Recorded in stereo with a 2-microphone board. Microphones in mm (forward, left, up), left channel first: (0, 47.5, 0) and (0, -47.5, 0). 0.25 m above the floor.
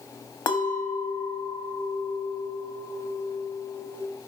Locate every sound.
0.5 s a clink: 50° left (ahead or behind), 0.7 m